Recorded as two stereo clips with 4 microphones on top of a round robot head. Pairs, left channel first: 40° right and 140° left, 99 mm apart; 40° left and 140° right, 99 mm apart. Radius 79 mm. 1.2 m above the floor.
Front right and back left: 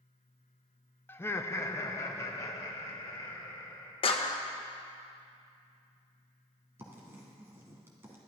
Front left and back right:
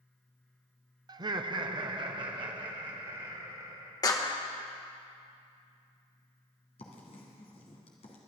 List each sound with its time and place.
1.1 s laughter: 105° right, 0.6 m; by 3.9 s 100° right, 2.5 m
4.0 s a clap: 10° right, 1.1 m
6.8 s writing: 75° left, 1.8 m